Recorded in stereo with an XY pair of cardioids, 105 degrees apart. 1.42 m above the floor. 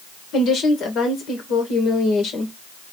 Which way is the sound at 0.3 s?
65° left.